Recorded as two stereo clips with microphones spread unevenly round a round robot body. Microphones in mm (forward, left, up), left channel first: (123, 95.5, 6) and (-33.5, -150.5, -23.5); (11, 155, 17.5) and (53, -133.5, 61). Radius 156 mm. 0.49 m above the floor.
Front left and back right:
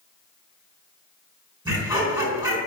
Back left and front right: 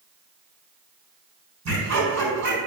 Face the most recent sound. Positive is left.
turn(degrees=-40)